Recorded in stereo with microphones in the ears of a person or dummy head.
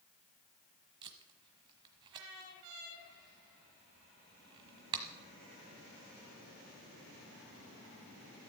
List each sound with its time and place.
1.0 s tape being pulled: 30° right (ahead or behind), 1.2 m